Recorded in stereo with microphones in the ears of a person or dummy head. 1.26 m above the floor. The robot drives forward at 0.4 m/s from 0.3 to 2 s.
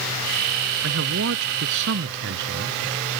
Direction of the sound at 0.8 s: 70° right (ahead or behind).